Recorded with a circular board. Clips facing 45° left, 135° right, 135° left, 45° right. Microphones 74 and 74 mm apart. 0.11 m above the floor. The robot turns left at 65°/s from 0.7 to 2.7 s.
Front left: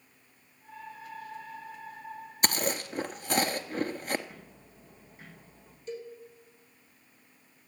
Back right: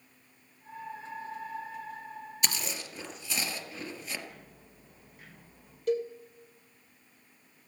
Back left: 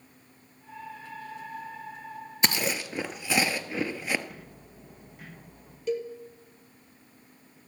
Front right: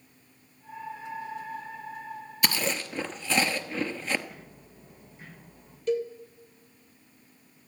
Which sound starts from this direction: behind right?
A cowbell, at 5.9 s.